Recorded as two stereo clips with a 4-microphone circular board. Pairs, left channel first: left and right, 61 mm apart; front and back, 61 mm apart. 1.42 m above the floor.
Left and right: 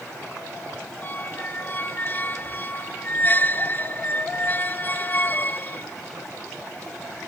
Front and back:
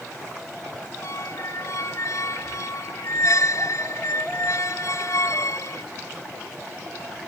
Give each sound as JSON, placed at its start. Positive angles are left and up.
{"t": 1.0, "sound": "a squeak", "azimuth_deg": 30}